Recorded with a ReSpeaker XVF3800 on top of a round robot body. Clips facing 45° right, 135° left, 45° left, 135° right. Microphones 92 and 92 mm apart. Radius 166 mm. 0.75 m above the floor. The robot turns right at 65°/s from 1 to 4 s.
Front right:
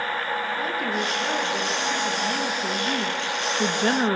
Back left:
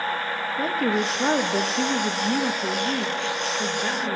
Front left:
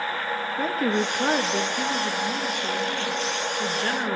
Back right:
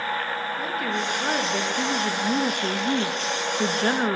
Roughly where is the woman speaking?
Left.